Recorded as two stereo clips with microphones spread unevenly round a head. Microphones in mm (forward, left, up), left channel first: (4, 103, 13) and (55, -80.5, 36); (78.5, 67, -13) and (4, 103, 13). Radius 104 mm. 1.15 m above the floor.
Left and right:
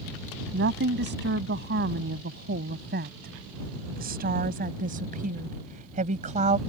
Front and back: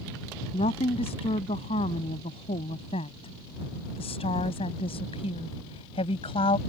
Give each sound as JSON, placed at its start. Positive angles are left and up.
{"t": 0.5, "sound": "a woman speaking", "azimuth_deg": -45}